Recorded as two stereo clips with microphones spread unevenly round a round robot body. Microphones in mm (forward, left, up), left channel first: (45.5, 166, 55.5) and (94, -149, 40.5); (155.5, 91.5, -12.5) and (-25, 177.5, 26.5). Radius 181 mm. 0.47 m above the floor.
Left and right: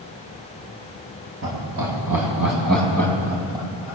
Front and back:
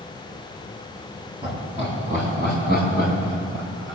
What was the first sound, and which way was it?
Laughter, 125° right.